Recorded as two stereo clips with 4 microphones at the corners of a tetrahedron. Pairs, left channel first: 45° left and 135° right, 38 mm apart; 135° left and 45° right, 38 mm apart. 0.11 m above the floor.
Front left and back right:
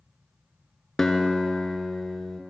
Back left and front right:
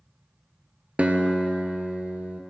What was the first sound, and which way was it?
A guitar, 25° right.